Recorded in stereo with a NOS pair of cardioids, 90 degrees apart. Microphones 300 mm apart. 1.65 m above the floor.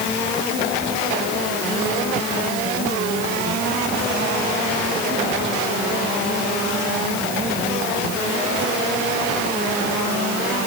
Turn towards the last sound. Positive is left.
No sound to turn to.